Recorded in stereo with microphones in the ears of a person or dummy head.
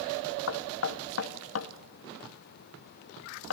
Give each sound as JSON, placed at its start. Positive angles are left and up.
{"t": 0.5, "sound": "knocking", "side_deg": 85, "distance_m": 1.5}